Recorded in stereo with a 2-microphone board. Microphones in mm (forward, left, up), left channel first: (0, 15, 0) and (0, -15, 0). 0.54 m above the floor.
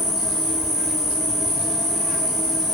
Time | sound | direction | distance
0.0 | an insect | 5° right (ahead or behind) | 2 m